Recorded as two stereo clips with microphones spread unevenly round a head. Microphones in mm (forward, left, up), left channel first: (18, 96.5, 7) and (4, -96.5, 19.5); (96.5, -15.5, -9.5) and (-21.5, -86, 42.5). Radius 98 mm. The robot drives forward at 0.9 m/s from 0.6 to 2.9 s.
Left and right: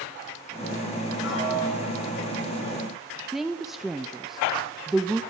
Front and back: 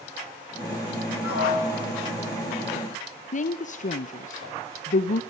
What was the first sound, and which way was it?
A piano, 55° left.